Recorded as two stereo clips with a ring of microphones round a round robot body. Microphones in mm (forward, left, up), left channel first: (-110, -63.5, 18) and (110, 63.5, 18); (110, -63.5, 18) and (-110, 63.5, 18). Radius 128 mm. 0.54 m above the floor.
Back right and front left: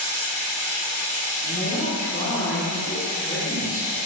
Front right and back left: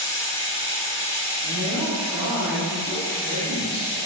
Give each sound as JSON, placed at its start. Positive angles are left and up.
{"t": 0.0, "sound": "running water", "azimuth_deg": -30, "distance_m": 1.6}
{"t": 1.4, "sound": "a woman speaking", "azimuth_deg": 140, "distance_m": 1.3}